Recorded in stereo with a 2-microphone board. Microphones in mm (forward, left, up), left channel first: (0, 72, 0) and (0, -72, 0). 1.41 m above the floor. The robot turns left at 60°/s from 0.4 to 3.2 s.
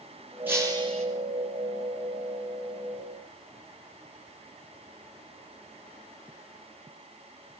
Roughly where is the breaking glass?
Ahead.